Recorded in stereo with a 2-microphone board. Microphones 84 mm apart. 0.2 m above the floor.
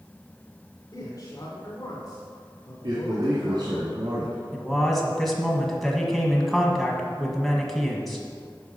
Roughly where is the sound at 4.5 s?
Centre.